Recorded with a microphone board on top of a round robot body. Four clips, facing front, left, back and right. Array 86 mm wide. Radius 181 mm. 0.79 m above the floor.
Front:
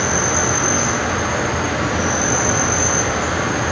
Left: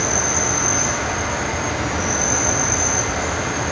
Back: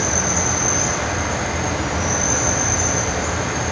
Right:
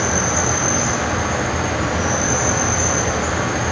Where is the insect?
25° right, 6 m.